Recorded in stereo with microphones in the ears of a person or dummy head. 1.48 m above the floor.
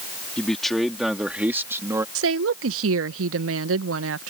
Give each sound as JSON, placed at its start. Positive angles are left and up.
{"t": 0.4, "sound": "a man speaking", "side_deg": 5}
{"t": 2.1, "sound": "a woman speaking", "side_deg": -85}